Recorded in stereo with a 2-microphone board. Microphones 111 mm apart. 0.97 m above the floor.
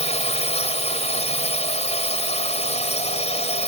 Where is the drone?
80° left.